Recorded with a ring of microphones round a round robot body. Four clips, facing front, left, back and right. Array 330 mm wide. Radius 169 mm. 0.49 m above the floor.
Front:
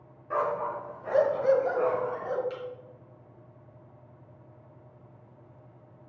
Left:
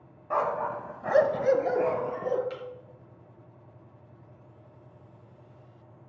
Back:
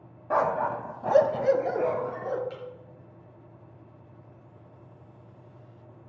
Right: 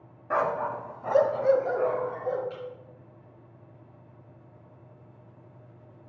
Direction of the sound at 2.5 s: 85° left.